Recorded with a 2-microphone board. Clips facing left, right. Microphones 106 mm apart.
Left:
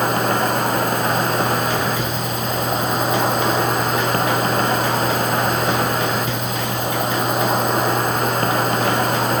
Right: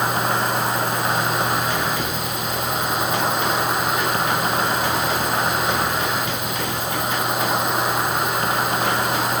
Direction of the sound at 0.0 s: 65° left (ahead or behind).